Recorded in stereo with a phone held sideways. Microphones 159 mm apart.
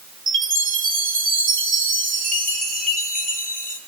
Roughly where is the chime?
Left.